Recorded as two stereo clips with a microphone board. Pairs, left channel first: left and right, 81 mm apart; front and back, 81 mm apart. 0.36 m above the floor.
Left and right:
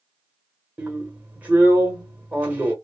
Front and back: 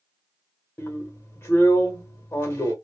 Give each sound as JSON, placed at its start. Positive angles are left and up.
{"t": 0.8, "sound": "a drill", "azimuth_deg": -35, "distance_m": 1.0}